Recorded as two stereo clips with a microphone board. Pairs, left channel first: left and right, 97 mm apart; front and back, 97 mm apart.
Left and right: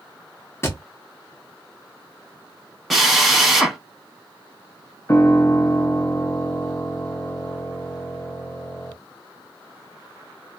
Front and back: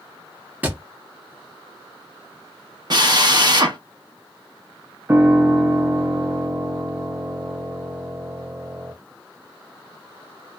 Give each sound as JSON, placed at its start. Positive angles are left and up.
{"t": 0.6, "sound": "a thud", "azimuth_deg": 120, "distance_m": 0.9}
{"t": 2.9, "sound": "a drill", "azimuth_deg": 180, "distance_m": 0.9}
{"t": 5.1, "sound": "a piano", "azimuth_deg": 140, "distance_m": 0.6}